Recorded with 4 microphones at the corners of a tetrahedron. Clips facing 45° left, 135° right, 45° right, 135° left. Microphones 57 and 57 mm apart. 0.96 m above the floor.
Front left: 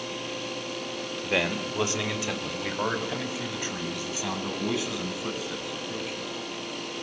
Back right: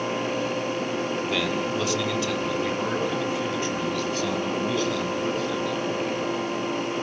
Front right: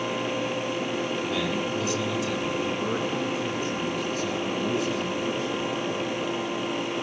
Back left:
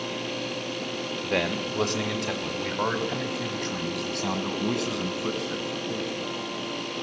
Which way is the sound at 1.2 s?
105° left.